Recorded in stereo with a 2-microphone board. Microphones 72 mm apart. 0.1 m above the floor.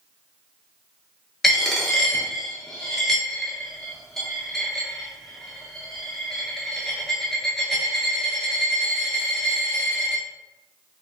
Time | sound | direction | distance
1.4 | a dropped coin | 5° left (ahead or behind) | 0.7 m